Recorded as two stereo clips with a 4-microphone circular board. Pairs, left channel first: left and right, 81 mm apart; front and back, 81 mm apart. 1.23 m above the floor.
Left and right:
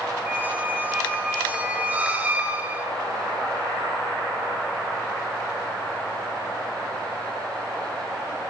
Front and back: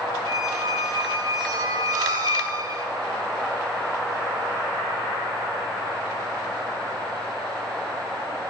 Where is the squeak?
155° right, 1.1 m.